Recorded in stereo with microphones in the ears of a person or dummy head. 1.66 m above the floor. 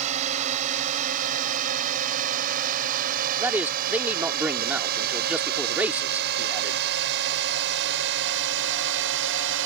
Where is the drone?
40° right (ahead or behind); by 9.7 s 75° right (ahead or behind).